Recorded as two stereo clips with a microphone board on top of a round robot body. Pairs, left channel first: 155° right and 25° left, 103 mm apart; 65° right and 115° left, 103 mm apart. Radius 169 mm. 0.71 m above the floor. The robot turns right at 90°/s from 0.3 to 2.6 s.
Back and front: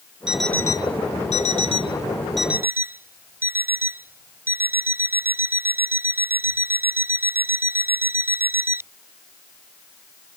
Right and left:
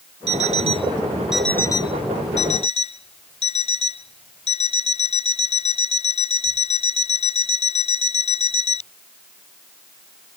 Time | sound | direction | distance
0.3 | an alarm clock | 105° left | ?